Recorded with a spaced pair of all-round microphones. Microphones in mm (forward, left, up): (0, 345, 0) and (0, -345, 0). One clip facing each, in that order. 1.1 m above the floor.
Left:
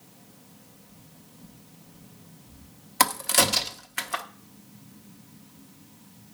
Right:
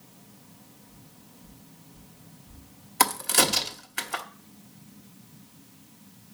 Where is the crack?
10° left (ahead or behind), 0.9 m.